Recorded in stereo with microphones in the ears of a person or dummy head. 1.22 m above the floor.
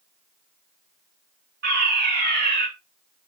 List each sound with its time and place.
1.6 s a fire alarm: 60° right (ahead or behind), 4.5 m